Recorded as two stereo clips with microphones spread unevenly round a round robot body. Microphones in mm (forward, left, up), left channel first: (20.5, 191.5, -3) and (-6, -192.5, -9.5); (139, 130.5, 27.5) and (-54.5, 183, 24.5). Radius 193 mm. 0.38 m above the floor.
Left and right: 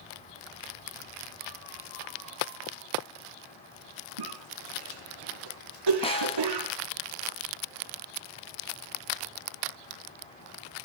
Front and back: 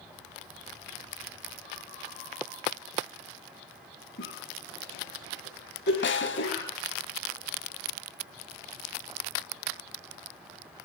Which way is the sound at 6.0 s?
10° left.